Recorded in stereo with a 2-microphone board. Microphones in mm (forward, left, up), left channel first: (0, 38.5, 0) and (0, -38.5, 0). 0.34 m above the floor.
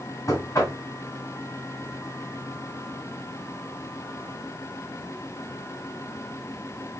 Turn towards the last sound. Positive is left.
turn(degrees=45)  # may be behind; listen again after turning